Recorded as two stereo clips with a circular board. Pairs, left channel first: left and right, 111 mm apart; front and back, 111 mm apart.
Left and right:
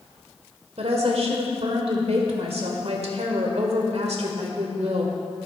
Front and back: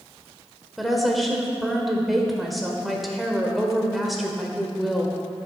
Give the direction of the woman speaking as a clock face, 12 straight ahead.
3 o'clock.